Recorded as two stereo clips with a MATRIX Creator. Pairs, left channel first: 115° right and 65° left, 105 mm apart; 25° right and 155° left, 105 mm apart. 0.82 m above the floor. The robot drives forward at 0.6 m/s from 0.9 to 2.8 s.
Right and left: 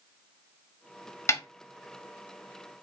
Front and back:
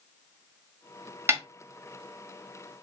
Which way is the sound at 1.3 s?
155° right.